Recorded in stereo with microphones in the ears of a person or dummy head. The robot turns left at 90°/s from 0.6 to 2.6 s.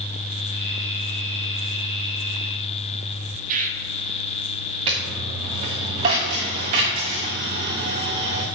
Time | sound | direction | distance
3.5 | a bird | 40° right (ahead or behind) | 0.8 m
4.9 | a dropped coin | 20° right (ahead or behind) | 1.1 m